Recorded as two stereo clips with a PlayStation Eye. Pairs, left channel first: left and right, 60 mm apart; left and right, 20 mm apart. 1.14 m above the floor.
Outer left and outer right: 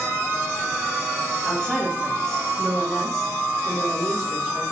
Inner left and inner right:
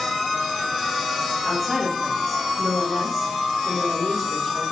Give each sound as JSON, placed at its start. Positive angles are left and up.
{"t": 1.4, "sound": "a woman speaking", "side_deg": 10, "distance_m": 2.5}